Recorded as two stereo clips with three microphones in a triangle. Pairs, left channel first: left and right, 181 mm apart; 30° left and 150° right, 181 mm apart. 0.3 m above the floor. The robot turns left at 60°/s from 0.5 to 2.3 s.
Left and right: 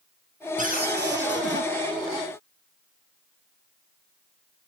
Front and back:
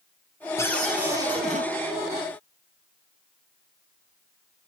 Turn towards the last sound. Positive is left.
turn(degrees=-145)